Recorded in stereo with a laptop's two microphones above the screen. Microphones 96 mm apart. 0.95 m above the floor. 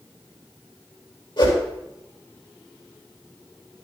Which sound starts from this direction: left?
A whoosh, at 1.4 s.